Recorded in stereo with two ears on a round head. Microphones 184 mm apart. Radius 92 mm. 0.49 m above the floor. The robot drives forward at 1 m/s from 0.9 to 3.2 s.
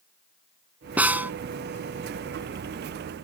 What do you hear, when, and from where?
1.0 s a snare drum: 10° right (ahead or behind)